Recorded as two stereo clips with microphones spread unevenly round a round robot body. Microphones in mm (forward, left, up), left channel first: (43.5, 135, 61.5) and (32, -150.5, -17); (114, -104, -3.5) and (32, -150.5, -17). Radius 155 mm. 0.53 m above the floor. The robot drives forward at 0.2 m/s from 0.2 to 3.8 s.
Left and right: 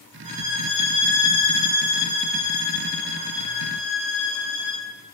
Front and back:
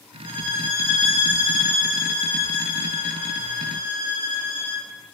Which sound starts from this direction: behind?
A violin, at 0.2 s.